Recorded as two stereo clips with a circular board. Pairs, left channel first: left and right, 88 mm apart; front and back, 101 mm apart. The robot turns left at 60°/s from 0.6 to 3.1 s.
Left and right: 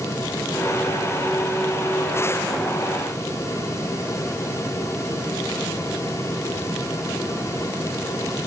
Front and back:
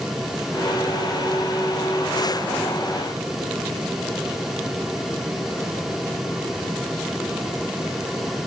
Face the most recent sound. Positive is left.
No sound to turn to.